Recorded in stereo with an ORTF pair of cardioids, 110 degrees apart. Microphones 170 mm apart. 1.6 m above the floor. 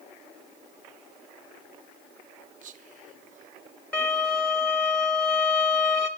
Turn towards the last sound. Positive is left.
turn(degrees=10)